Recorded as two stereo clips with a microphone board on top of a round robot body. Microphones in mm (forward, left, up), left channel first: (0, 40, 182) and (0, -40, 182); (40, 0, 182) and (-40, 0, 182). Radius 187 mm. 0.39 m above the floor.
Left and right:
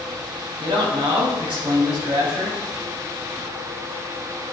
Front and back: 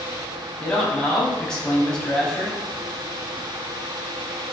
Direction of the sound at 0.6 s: 80° right.